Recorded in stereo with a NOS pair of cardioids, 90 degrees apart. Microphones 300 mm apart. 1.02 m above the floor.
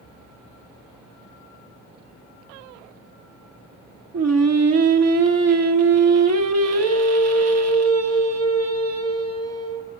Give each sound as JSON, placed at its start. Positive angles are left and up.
{"t": 4.1, "sound": "singing", "azimuth_deg": -60, "distance_m": 1.4}